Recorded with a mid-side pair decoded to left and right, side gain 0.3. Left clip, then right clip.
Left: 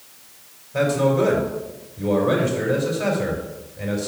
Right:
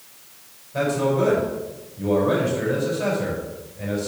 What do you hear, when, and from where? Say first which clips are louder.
0.7 s a man speaking: left 2 dB; 35° left, 5 m